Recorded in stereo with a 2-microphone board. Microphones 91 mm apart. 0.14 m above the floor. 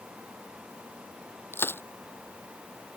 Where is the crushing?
25° left (ahead or behind).